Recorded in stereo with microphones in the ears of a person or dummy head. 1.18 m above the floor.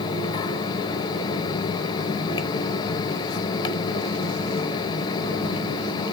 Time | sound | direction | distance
0.0 | a fan | 25° left (ahead or behind) | 1.0 m